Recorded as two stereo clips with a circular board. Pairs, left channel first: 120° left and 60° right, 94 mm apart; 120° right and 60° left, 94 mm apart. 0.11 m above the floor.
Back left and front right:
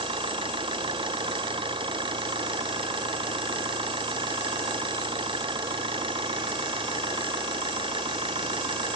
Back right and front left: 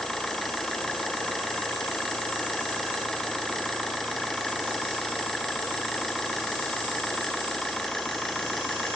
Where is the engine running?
35° right.